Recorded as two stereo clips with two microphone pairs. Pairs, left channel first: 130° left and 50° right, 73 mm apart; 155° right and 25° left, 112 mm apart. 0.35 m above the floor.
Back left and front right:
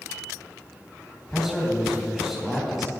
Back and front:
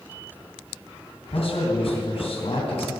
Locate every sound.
1.3 s a man speaking: 140° right, 3 m